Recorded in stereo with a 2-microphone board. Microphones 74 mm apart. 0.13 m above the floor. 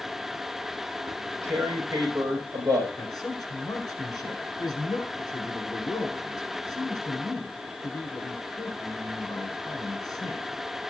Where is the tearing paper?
50° right (ahead or behind), 7.5 m.